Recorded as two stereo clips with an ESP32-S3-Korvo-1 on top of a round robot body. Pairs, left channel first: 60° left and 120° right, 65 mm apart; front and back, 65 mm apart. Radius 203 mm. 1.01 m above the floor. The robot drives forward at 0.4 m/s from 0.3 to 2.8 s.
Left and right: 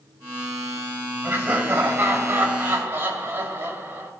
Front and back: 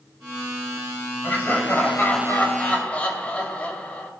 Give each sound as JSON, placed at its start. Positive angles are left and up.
{"t": 1.2, "sound": "laughter", "azimuth_deg": -55, "distance_m": 3.0}